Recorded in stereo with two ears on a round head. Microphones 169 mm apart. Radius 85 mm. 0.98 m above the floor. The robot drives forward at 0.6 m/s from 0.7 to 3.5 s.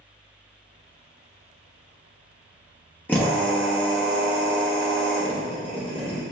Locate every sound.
3.1 s a drill: 10° left (ahead or behind), 1.7 m